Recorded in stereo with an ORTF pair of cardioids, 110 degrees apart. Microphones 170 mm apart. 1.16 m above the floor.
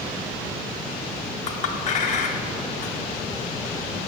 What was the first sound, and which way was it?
A clink, 45° left.